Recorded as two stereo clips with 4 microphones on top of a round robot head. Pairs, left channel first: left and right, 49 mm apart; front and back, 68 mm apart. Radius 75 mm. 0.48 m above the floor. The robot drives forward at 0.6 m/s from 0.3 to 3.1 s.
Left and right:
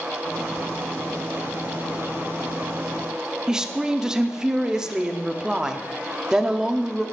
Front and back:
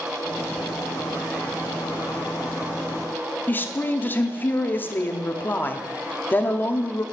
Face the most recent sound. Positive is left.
turn(degrees=-25)